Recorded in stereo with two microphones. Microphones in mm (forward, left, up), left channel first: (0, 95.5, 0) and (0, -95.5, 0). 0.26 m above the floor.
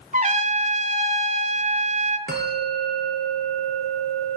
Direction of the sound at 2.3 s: 60° right (ahead or behind).